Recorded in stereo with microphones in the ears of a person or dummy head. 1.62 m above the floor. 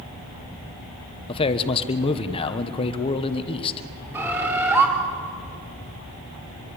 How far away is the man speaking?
About 1.3 m.